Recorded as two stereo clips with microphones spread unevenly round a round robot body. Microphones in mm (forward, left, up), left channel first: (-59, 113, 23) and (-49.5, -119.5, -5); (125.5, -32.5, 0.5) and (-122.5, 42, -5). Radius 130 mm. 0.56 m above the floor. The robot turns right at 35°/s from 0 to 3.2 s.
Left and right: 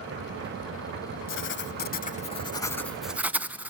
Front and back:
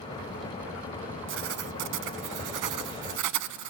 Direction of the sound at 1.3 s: 120° left.